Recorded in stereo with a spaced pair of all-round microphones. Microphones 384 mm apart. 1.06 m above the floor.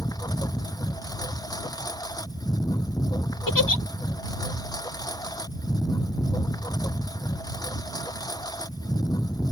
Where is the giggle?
55° left (ahead or behind).